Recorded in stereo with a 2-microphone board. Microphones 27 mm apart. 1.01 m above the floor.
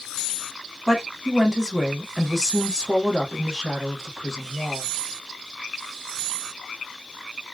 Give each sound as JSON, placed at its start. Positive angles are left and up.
{"t": 0.9, "sound": "a woman speaking", "side_deg": -10, "distance_m": 1.4}